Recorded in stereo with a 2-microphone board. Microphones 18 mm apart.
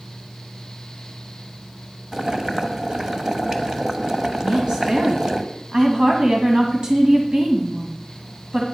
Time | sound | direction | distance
2.1 | boiling | 35° right (ahead or behind) | 1.0 m
4.4 | a woman speaking | 50° right (ahead or behind) | 1.7 m